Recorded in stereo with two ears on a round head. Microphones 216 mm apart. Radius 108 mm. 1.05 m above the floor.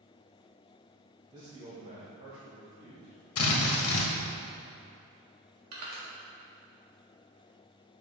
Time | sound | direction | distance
1.3 | a man speaking | 15° right (ahead or behind) | 1.0 m
3.4 | a drill | 70° left (ahead or behind) | 1.2 m
5.7 | crushing | 75° right (ahead or behind) | 2.0 m